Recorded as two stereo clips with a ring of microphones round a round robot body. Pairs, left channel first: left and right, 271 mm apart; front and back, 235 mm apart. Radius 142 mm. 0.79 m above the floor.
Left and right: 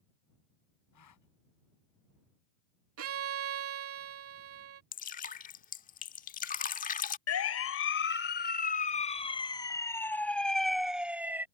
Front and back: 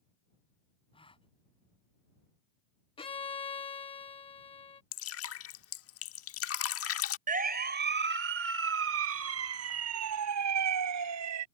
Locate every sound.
0.9 s a gasp: 70° left
3.0 s a violin: 65° right
4.9 s dripping: 25° left
7.3 s a siren: 125° left; by 11.4 s 175° right